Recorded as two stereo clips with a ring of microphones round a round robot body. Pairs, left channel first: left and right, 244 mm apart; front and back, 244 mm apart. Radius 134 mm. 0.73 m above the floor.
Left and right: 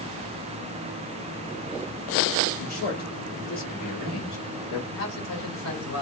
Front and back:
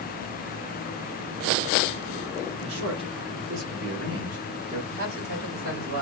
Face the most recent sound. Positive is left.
turn(degrees=125)